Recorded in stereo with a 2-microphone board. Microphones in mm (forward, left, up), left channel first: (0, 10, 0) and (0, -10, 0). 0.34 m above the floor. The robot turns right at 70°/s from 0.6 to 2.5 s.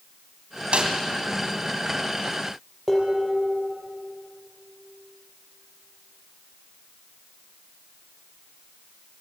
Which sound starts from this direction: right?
A snare drum, at 0.7 s.